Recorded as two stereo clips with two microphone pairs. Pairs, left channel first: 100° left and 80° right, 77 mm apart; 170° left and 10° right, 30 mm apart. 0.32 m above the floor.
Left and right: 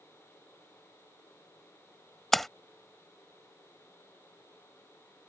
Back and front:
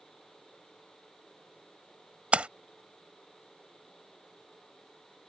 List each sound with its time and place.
2.3 s a splash: 5° left